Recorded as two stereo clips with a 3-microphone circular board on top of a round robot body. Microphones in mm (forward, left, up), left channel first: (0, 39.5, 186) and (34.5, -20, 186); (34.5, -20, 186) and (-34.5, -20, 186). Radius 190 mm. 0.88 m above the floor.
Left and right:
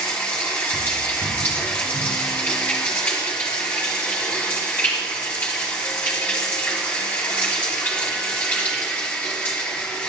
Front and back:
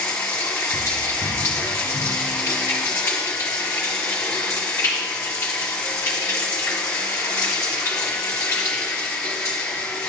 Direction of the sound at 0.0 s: 60° left.